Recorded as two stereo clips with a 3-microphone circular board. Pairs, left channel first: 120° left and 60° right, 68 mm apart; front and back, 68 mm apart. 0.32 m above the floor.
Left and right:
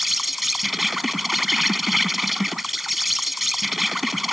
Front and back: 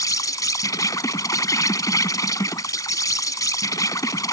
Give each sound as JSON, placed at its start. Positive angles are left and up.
{"t": 0.0, "sound": "an insect", "azimuth_deg": 30}